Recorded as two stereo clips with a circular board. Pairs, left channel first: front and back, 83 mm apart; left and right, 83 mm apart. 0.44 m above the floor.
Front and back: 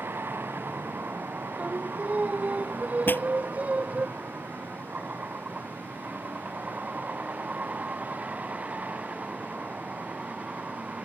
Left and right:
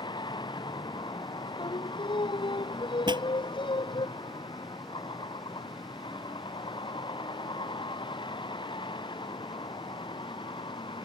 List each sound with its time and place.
0.0 s a vehicle: 115° left; by 11.1 s 105° left
1.6 s singing: 105° left
3.1 s a pop: 65° right